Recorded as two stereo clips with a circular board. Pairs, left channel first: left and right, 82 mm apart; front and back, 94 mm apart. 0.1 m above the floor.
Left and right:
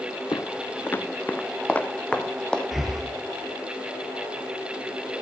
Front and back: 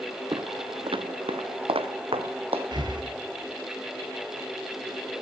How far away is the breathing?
About 2 m.